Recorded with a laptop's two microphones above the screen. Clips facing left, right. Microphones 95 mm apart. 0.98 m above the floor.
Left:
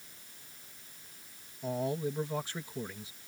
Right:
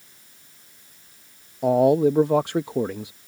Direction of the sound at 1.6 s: 70° right (ahead or behind).